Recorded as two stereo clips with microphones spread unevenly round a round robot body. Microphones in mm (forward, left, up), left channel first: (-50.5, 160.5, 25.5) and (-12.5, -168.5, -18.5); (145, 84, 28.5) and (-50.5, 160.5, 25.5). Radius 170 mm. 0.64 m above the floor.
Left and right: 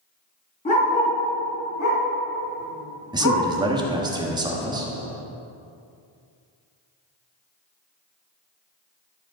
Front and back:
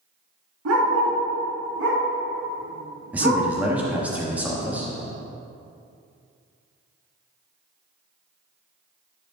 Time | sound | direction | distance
0.7 | a dog barking | 165° left | 3.5 m
3.1 | a man speaking | 130° right | 1.2 m